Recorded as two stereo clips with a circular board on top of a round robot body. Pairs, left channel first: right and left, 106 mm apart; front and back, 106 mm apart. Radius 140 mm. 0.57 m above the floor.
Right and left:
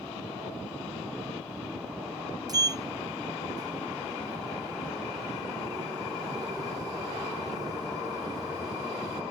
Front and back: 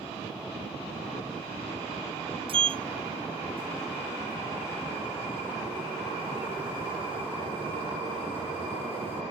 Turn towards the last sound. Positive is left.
turn(degrees=145)